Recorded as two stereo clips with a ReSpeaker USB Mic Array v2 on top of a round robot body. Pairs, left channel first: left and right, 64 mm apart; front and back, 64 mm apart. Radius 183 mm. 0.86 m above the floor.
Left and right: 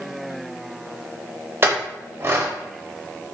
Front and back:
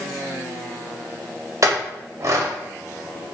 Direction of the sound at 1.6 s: 145° right.